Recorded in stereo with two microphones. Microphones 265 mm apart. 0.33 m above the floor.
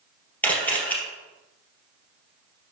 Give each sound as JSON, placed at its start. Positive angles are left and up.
{"t": 0.4, "sound": "a camera shutter", "side_deg": 5, "distance_m": 3.0}